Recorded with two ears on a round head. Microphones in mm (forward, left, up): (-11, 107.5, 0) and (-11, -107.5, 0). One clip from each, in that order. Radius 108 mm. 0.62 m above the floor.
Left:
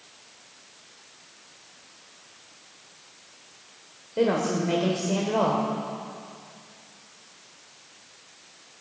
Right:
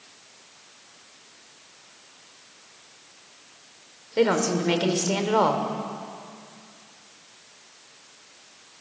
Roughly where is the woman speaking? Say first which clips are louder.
Right 2 dB; right.